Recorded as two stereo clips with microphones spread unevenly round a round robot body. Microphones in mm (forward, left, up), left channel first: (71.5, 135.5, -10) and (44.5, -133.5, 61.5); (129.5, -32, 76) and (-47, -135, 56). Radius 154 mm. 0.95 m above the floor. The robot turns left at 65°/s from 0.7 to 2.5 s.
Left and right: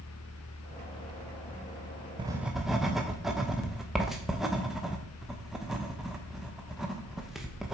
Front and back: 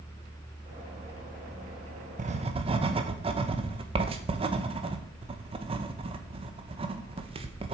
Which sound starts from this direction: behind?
Writing, at 2.2 s.